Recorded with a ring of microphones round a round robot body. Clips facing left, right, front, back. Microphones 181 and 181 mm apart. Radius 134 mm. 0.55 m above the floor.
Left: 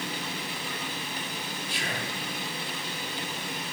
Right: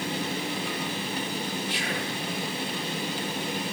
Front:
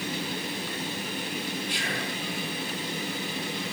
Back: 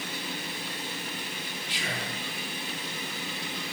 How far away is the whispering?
About 8.5 m.